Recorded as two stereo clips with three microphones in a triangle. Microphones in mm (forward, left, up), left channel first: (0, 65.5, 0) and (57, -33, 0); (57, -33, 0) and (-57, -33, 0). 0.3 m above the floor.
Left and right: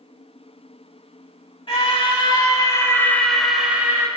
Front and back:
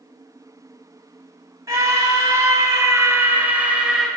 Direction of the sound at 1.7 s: 130° left.